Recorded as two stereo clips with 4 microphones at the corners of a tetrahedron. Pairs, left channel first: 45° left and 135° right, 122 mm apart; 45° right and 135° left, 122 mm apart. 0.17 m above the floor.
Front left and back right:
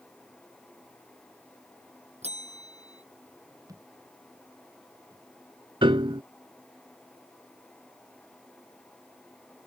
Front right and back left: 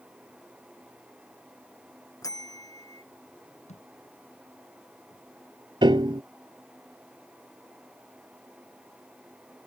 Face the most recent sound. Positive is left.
turn(degrees=180)